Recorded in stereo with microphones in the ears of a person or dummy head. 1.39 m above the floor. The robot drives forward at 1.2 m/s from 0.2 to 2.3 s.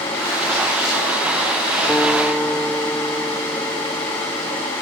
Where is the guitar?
5° left (ahead or behind).